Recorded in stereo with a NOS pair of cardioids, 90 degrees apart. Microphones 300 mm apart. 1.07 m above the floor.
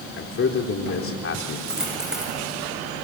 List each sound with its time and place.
0.2 s a man speaking: 45° left, 3 m
1.7 s a dropped coin: straight ahead, 8.5 m